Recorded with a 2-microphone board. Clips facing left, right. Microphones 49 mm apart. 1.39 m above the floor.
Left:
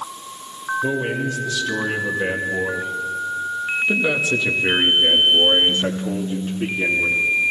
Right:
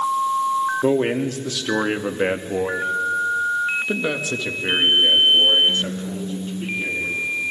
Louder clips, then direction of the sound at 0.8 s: Right 3 dB; 65° right (ahead or behind).